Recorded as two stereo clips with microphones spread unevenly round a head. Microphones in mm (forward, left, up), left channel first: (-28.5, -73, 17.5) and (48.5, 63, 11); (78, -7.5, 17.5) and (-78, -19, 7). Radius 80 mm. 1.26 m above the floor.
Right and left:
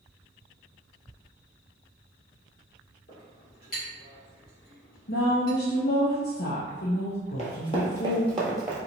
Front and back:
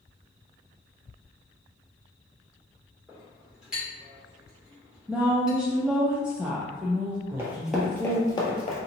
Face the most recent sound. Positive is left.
turn(degrees=-20)